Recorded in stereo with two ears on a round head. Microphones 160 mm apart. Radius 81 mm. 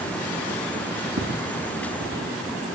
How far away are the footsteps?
About 3.5 m.